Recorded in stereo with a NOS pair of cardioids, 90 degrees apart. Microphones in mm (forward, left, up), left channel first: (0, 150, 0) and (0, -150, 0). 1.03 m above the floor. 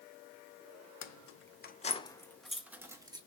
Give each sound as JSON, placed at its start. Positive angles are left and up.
{"t": 1.0, "sound": "keys jangling", "azimuth_deg": 65, "distance_m": 0.7}